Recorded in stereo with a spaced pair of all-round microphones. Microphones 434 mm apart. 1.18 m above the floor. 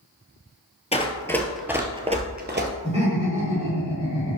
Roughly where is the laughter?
Centre.